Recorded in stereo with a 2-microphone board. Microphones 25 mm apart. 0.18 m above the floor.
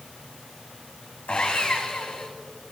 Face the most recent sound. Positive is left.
turn(degrees=55)  # may be behind; listen again after turning